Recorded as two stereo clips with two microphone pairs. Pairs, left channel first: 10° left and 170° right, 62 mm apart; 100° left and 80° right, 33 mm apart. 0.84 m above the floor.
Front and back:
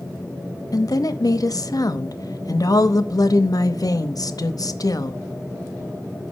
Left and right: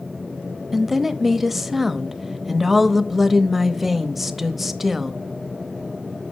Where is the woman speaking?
10° left, 0.7 m.